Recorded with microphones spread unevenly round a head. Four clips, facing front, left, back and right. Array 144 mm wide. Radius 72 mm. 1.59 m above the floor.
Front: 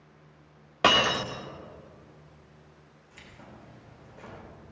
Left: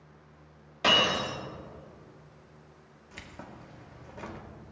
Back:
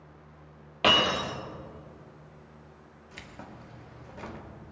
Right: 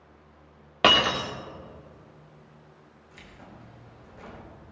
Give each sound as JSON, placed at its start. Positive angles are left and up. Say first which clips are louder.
{"t": 0.8, "sound": "breaking glass", "louder": "right 4 dB, front 1 dB", "azimuth_deg": -70, "distance_m": 2.0}
{"t": 3.1, "sound": "keys jangling", "louder": "left 3 dB, back 4 dB", "azimuth_deg": 120, "distance_m": 2.0}